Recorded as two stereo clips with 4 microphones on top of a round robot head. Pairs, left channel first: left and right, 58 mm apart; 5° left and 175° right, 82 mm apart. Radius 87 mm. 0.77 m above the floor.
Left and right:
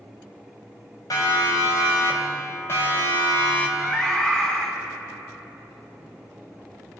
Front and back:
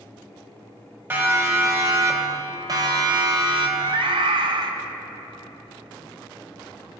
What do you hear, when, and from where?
1.1 s a siren: 120° left, 5 m; by 3.7 s 160° left, 3.5 m
3.8 s a scream: 165° left, 2 m